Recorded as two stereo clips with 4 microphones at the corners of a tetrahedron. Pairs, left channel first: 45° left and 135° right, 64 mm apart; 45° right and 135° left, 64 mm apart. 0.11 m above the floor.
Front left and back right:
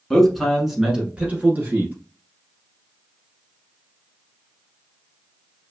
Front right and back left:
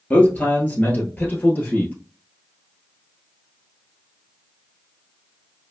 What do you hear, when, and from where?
0.1 s a man speaking: 20° right, 1.1 m; by 1.9 s 90° right, 1.5 m